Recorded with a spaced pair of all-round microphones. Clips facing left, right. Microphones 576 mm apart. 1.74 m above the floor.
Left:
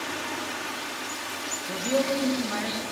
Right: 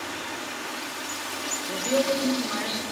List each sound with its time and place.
1.7 s a man speaking: 20° left (ahead or behind), 1.4 m